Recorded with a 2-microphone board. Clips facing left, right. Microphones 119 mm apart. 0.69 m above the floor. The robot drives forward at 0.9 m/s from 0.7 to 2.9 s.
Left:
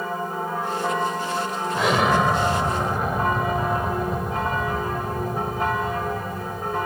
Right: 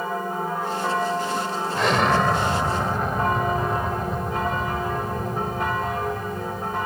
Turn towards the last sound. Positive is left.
turn(degrees=5)  # may be behind; listen again after turning